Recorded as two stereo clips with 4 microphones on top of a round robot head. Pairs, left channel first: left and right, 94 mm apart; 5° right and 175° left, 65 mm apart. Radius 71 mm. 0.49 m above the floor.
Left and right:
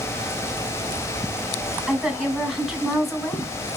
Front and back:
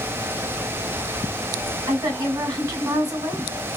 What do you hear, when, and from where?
1.9 s a woman speaking: straight behind, 2 m